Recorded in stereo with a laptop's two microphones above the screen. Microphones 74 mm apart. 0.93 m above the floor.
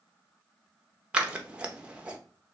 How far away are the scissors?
About 0.7 m.